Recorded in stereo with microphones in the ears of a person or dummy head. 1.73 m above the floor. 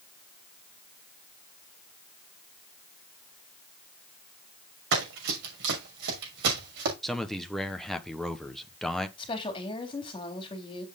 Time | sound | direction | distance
4.9 | running footsteps | 65° right (ahead or behind) | 6 m
7.0 | a man speaking | 5° right (ahead or behind) | 1.1 m
9.2 | a woman speaking | 20° left (ahead or behind) | 3.5 m